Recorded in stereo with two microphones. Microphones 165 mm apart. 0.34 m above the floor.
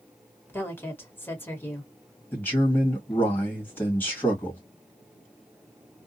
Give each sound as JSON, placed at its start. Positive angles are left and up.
{"t": 0.5, "sound": "a woman speaking", "side_deg": 15, "distance_m": 1.1}
{"t": 2.3, "sound": "a man speaking", "side_deg": 15, "distance_m": 1.5}